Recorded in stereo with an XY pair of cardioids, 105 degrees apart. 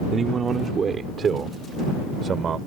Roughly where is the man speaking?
Ahead right.